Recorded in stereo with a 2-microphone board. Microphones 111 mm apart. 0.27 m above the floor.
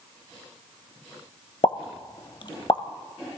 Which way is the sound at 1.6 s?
45° left (ahead or behind).